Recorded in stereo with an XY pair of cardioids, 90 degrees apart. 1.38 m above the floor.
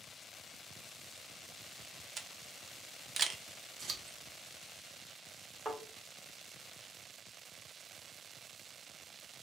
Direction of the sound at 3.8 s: 60° right.